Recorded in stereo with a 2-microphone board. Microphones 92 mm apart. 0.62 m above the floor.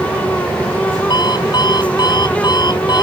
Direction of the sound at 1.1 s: 50° left (ahead or behind).